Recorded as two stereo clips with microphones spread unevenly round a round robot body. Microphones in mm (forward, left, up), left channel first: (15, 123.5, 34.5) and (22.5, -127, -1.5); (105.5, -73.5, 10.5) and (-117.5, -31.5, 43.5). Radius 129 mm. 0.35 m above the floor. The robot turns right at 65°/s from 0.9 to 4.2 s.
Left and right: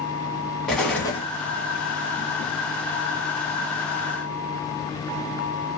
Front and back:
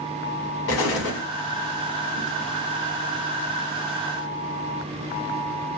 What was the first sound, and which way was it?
An explosion, straight ahead.